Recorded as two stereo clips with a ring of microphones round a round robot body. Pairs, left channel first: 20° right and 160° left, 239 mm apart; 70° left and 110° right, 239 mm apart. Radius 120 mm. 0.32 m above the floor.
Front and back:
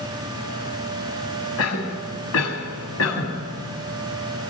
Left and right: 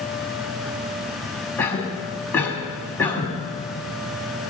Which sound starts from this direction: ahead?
A cough, at 1.6 s.